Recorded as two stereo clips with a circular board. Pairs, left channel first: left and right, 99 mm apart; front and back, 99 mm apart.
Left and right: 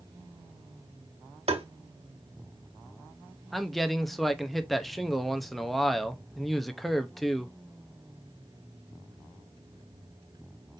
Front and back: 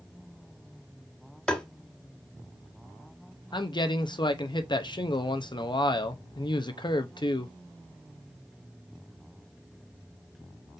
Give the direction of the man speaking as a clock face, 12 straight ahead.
12 o'clock.